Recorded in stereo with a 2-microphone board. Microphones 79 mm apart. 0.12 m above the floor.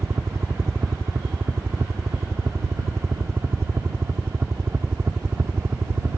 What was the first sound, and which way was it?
A helicopter, 35° right (ahead or behind).